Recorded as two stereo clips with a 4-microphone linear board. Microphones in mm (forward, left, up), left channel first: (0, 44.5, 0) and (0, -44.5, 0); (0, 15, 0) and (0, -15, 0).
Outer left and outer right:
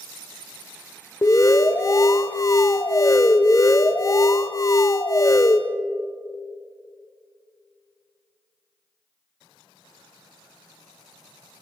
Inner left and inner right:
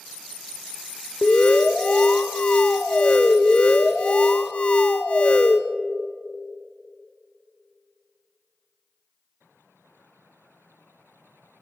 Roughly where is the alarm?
Left.